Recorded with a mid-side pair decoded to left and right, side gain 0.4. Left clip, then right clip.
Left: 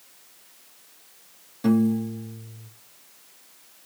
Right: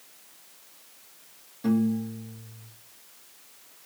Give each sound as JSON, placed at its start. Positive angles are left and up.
{"t": 1.6, "sound": "a piano", "azimuth_deg": 50, "distance_m": 0.9}